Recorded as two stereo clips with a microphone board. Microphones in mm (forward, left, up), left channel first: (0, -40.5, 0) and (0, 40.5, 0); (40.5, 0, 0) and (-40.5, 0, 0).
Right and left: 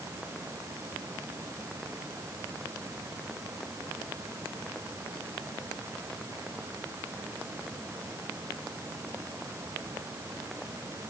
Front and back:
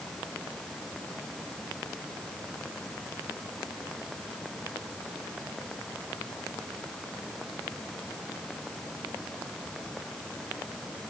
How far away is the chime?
I don't hear a chime.